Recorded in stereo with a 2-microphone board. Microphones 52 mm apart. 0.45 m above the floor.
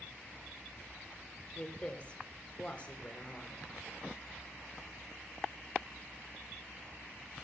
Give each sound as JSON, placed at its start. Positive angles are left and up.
{"t": 1.6, "sound": "a woman speaking", "side_deg": 25, "distance_m": 1.2}